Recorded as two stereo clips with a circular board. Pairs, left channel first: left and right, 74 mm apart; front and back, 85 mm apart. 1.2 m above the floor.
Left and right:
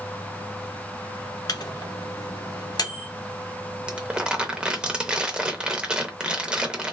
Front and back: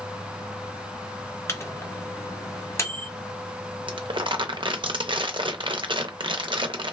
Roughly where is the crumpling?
Behind.